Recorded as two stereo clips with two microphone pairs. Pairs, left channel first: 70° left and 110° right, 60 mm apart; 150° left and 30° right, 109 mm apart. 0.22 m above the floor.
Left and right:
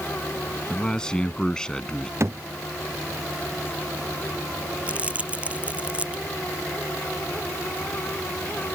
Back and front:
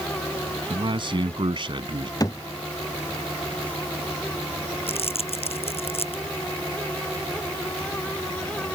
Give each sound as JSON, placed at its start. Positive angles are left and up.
{"t": 0.7, "sound": "a man speaking", "azimuth_deg": -5}
{"t": 2.2, "sound": "a thud", "azimuth_deg": -155}
{"t": 4.9, "sound": "crumpling", "azimuth_deg": 180}